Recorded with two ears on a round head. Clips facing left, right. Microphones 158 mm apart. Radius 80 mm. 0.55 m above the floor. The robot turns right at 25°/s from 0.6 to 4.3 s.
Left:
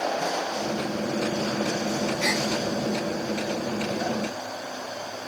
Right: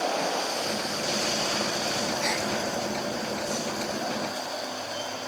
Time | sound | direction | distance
2.2 | a gasp | 80° left | 3.5 m